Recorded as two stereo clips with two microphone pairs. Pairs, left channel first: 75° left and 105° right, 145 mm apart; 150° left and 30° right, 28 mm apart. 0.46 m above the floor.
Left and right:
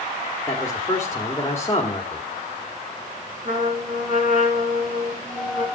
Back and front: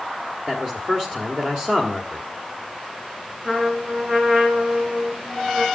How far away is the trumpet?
About 5 m.